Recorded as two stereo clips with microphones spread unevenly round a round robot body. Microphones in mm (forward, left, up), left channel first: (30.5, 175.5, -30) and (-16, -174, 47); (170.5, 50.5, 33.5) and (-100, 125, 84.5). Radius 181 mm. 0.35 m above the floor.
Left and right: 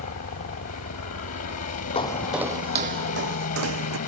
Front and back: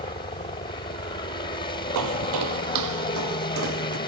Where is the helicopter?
40° left.